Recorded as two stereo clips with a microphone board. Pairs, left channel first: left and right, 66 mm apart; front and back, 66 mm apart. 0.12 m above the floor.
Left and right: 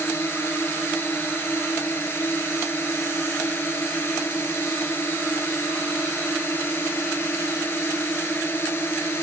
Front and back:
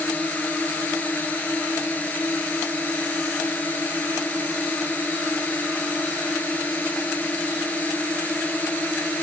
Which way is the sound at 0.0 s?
55° left.